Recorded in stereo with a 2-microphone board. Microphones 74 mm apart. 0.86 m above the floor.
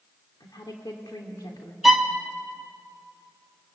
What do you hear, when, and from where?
0.4 s a woman speaking: 65° left (ahead or behind), 2.5 m
1.8 s a violin: 5° right (ahead or behind), 1.4 m